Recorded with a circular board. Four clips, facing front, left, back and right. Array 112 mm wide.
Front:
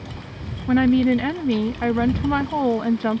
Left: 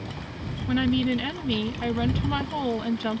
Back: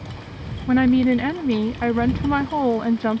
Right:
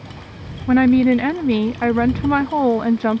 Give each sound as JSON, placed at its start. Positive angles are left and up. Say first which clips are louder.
{"t": 0.7, "sound": "a woman speaking", "louder": "right 11 dB, even", "azimuth_deg": -90}